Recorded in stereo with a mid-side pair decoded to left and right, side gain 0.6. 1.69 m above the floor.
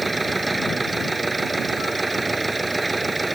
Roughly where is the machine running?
Ahead.